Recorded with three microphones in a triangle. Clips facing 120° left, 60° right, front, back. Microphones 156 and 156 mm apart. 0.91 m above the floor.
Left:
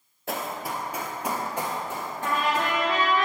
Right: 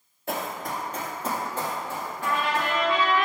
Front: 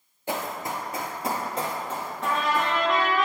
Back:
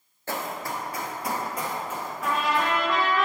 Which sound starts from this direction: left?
A trumpet, at 2.2 s.